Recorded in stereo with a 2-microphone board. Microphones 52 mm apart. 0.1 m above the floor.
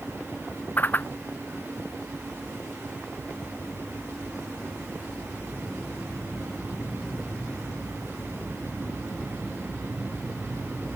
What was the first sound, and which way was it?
A whoosh, 35° left (ahead or behind).